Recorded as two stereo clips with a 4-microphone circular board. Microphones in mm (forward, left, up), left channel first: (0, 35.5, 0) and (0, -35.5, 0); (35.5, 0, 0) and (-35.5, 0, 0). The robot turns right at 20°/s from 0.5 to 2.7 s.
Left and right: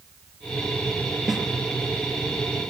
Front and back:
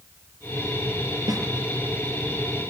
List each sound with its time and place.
1.3 s a snare drum: straight behind, 3.5 m; by 1.4 s 175° right, 3.5 m